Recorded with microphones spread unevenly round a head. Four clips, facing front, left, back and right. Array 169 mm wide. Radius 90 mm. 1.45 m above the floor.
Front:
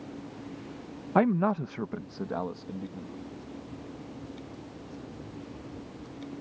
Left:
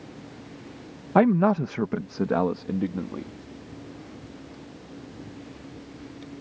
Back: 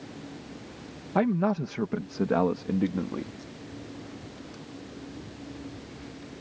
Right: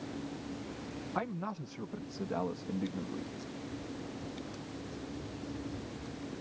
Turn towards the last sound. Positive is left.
turn(degrees=150)